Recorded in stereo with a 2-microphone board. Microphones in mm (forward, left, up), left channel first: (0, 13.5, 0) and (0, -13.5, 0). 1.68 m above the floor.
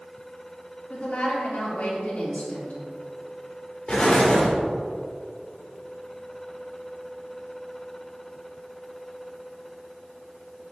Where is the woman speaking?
60° left (ahead or behind), 3 m.